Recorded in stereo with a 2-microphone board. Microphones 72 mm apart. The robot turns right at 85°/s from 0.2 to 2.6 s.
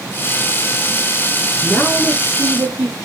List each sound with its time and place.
1.6 s a woman speaking: 140° left, 6.5 m; by 3.0 s 135° right, 6.5 m